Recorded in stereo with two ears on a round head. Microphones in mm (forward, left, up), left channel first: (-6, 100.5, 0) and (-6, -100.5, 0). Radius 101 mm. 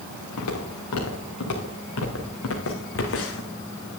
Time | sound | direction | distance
0.4 | footsteps | 80° left | 3.5 m